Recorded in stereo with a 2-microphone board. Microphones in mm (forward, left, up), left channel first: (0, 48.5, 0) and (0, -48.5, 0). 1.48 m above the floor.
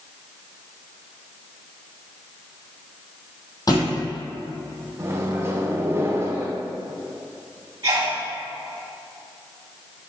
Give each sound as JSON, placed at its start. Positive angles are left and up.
{"t": 3.7, "sound": "a thud", "side_deg": 40, "distance_m": 2.0}
{"t": 5.0, "sound": "a microwave", "side_deg": -25, "distance_m": 0.8}
{"t": 7.8, "sound": "a sneeze", "side_deg": -45, "distance_m": 2.5}